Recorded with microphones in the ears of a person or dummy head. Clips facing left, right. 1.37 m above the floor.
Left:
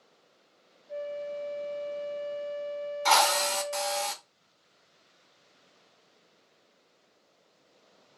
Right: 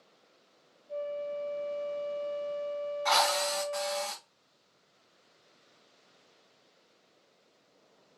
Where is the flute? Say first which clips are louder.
Even; 15° left (ahead or behind), 0.8 m.